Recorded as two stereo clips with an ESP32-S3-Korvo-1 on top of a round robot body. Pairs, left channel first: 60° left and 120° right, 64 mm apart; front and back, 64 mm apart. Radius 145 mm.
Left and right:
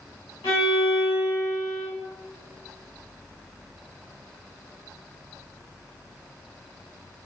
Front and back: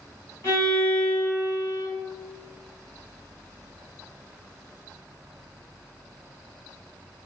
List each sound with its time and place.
0.4 s a violin: 50° left, 1.4 m